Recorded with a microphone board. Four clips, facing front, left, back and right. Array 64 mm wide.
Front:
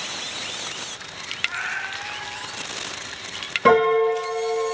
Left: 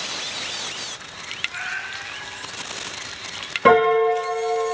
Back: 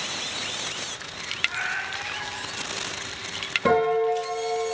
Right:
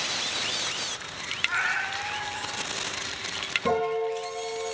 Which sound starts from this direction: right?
A cat meowing, at 1.5 s.